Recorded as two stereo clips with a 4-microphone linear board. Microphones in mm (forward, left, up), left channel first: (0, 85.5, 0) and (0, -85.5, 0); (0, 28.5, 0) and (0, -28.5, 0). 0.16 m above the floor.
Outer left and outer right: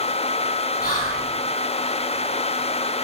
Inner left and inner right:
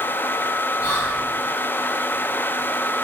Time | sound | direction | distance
0.8 | whispering | 50° left (ahead or behind) | 2 m